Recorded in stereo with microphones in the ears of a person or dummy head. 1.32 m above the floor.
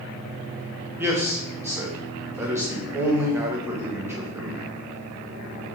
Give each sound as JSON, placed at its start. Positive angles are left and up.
{"t": 1.0, "sound": "a man speaking", "side_deg": -10, "distance_m": 0.7}